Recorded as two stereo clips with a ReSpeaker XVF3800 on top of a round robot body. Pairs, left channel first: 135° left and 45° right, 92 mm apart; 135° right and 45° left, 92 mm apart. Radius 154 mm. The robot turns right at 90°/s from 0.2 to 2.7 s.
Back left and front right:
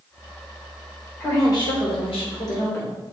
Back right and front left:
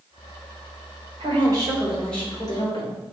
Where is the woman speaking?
60° left, 3 m; by 3.0 s 165° right, 3 m.